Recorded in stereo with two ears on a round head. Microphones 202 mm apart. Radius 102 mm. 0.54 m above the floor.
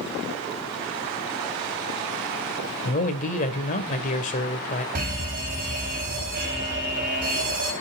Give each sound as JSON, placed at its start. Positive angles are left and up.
{"t": 2.9, "sound": "a man speaking", "side_deg": 35, "distance_m": 2.0}
{"t": 5.0, "sound": "a fire alarm", "side_deg": -40, "distance_m": 6.0}